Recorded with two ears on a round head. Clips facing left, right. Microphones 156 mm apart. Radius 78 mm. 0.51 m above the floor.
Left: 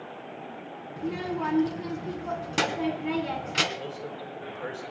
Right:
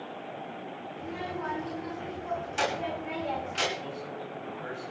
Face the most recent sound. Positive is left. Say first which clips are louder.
# left 1 dB
turn(degrees=80)